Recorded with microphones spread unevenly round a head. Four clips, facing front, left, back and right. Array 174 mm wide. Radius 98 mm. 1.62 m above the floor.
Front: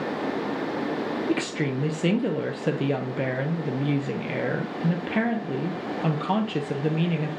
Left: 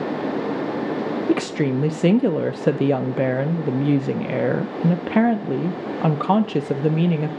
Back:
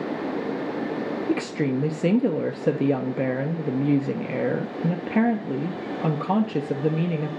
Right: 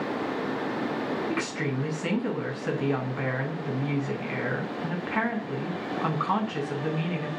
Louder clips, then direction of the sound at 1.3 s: Left 9 dB, back 5 dB; 105° left.